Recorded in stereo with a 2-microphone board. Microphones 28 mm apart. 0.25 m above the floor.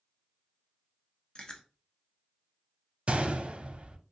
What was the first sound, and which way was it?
Chewing, 30° left (ahead or behind).